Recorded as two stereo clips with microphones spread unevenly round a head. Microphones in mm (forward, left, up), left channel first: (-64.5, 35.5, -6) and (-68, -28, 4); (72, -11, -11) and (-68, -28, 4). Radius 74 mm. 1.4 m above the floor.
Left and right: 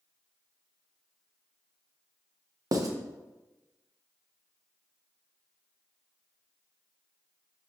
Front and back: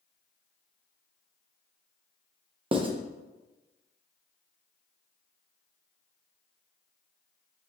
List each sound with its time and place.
2.7 s writing: 120° right, 1.0 m